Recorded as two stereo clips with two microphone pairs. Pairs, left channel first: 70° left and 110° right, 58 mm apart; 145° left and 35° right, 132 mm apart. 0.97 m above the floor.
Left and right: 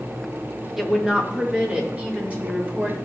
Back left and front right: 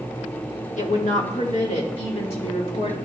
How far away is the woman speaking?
About 1.4 m.